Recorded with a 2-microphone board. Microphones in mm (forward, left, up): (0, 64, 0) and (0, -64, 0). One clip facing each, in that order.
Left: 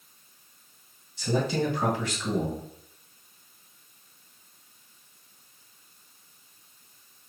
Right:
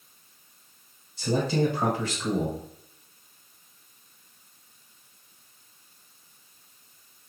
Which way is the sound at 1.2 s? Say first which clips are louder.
Right 2 dB; 35° right (ahead or behind).